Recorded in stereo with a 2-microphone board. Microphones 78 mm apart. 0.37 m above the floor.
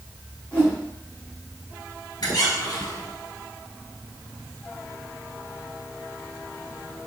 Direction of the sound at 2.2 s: 60° left (ahead or behind).